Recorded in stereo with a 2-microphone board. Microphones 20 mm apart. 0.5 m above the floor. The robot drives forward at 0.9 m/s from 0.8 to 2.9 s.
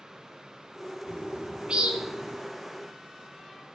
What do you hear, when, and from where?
1.1 s a bird: 60° right (ahead or behind), 3 m; by 2.4 s 45° right (ahead or behind), 3.5 m